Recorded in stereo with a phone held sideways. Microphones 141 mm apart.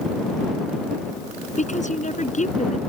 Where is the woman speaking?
60° left (ahead or behind).